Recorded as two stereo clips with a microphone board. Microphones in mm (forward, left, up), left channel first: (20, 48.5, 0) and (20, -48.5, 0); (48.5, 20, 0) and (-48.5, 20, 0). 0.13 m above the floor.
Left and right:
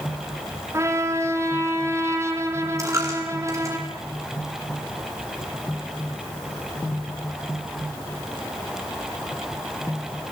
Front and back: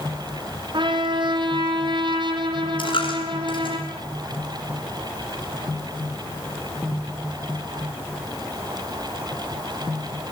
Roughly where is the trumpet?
Behind right.